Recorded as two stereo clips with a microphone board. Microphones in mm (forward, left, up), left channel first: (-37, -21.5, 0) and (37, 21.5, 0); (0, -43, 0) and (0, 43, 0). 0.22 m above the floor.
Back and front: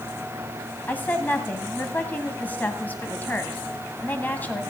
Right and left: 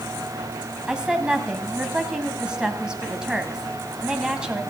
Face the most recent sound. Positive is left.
turn(degrees=160)